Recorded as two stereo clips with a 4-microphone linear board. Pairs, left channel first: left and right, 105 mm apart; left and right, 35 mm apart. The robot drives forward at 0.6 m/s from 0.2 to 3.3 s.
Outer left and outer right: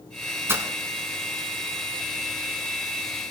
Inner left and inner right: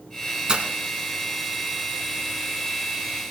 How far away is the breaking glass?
About 1.3 m.